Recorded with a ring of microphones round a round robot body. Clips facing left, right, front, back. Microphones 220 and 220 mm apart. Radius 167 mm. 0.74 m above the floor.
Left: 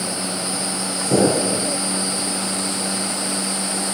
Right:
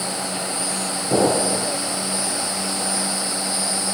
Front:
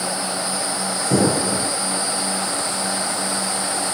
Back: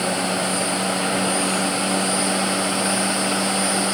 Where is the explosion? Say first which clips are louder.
Left 2 dB, front 9 dB; 20° left.